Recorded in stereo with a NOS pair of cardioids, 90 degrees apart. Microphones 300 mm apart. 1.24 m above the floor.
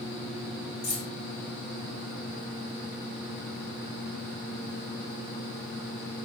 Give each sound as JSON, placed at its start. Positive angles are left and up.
{"t": 0.8, "sound": "keys jangling", "azimuth_deg": 50, "distance_m": 2.0}